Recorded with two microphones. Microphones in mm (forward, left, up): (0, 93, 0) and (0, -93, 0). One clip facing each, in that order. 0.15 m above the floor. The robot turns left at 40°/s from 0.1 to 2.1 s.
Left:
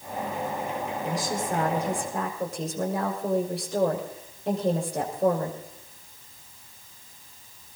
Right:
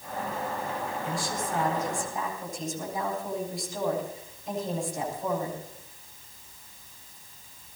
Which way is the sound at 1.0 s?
140° left.